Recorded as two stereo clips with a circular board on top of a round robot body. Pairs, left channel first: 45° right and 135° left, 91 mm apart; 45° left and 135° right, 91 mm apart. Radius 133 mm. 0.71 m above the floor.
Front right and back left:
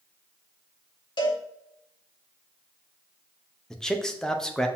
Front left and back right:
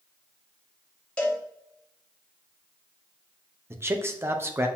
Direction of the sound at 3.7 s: 120° right.